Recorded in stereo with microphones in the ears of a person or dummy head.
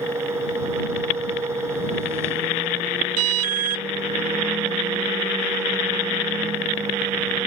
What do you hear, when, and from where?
0.0 s a fan: 15° right (ahead or behind)
3.2 s an alarm: 75° right (ahead or behind)